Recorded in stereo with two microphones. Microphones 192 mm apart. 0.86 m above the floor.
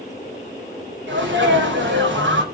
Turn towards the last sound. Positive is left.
turn(degrees=-75)  # may be behind; listen again after turning